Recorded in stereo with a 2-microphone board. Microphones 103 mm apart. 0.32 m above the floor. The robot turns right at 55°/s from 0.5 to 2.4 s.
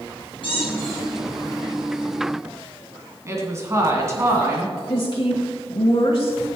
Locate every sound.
0.4 s a squeak: 55° left, 4.5 m; by 1.1 s 85° left, 4.5 m
3.2 s a woman speaking: 30° right (ahead or behind), 2.5 m
4.9 s a woman speaking: 50° left (ahead or behind), 1.5 m